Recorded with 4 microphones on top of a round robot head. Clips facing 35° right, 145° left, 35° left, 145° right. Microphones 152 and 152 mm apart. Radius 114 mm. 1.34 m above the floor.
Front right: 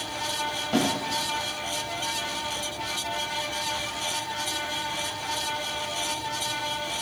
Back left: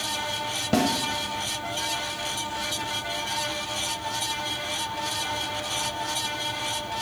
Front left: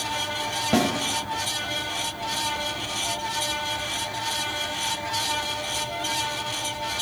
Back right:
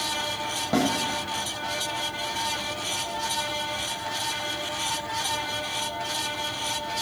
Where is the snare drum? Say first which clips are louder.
Back left 2 dB, front left 2 dB; 110° left, 1.4 m.